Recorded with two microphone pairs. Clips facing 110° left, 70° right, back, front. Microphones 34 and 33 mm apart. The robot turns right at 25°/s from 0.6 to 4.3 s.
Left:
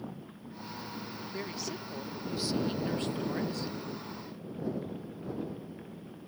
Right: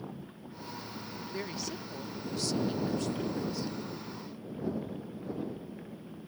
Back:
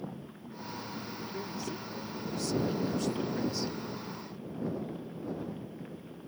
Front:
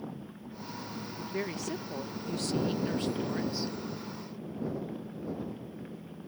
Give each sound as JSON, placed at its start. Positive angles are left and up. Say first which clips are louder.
{"t": 1.3, "sound": "a woman speaking", "louder": "even, front 6 dB", "azimuth_deg": 15}